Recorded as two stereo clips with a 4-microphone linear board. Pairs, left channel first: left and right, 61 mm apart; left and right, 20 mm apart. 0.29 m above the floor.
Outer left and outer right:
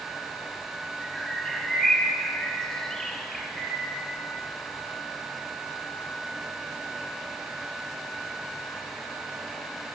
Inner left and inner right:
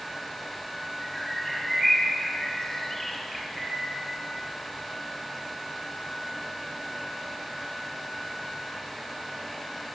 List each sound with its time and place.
1.0 s a bird: 10° left (ahead or behind), 1.1 m